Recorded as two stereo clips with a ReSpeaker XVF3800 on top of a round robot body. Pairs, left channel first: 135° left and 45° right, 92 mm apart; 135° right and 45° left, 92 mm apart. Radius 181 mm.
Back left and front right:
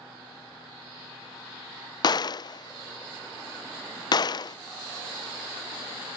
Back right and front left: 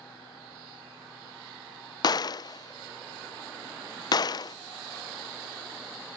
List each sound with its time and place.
2.0 s a gunshot: straight behind